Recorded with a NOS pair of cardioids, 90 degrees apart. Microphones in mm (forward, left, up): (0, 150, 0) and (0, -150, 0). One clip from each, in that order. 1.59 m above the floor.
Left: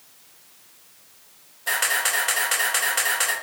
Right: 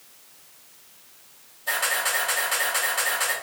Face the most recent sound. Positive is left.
turn(degrees=60)